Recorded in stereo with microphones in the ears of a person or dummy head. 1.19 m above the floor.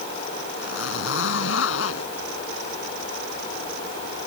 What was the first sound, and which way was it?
A zipper, 80° left.